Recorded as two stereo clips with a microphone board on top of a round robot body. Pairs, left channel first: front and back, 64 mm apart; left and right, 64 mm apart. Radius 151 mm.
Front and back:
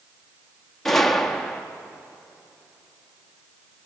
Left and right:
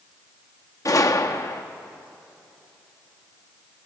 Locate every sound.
0.8 s a gunshot: 85° left, 1.3 m